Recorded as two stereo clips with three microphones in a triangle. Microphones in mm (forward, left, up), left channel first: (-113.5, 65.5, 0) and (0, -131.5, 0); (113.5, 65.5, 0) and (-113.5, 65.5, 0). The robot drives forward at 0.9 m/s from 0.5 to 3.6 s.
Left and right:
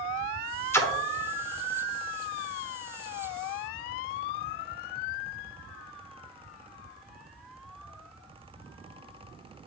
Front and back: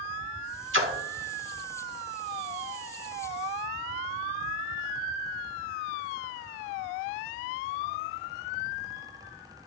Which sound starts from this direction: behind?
A splash, at 0.7 s.